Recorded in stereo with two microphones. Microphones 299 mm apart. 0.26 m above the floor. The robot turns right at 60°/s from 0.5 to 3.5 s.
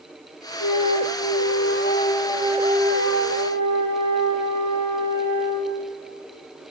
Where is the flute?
75° left, 1.8 m; by 5.8 s 110° right, 1.8 m.